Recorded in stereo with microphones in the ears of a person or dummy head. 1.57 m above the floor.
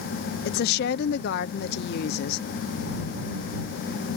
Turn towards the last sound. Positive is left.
turn(degrees=55)  # may be behind; listen again after turning